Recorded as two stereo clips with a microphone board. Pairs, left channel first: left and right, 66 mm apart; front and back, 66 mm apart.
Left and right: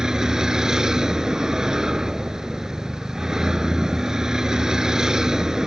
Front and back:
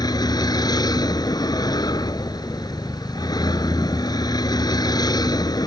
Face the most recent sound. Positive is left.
turn(degrees=-5)